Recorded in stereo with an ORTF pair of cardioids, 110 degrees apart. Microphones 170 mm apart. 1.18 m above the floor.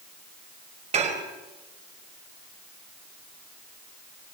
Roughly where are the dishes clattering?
Ahead right.